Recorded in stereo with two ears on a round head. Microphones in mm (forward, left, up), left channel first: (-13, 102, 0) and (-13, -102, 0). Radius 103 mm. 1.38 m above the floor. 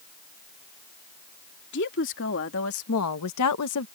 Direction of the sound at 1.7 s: 50° left (ahead or behind).